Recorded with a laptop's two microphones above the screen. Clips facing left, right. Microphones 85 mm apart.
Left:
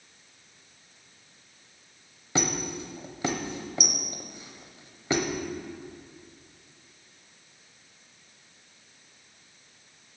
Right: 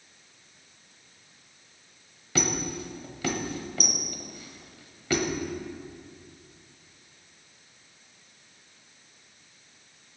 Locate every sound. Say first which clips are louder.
2.4 s a squeak: even; 25° left (ahead or behind), 0.9 m